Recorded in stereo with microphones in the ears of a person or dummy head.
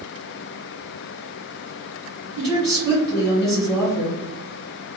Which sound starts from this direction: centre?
A woman speaking, at 2.4 s.